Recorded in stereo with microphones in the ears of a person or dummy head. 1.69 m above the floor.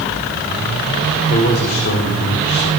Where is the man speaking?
45° left (ahead or behind), 4.5 m; by 2.7 s 55° left (ahead or behind), 3.5 m.